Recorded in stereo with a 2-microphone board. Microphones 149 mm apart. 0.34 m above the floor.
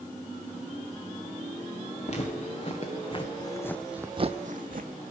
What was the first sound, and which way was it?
Footsteps, 50° left (ahead or behind).